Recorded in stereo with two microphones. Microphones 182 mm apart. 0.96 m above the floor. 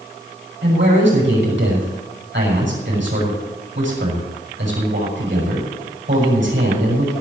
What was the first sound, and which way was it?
A man speaking, 75° right (ahead or behind).